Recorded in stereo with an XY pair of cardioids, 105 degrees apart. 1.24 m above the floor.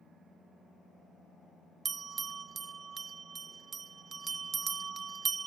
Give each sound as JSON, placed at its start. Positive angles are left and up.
{"t": 1.9, "sound": "a bell", "azimuth_deg": -40, "distance_m": 0.5}